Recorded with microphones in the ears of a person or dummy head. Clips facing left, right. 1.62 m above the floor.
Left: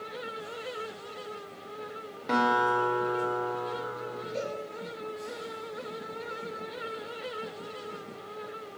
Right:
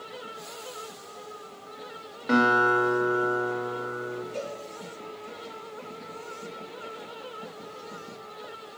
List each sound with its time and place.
2.3 s a guitar: 5° right (ahead or behind), 1.1 m
4.3 s a cowbell: 35° right (ahead or behind), 3 m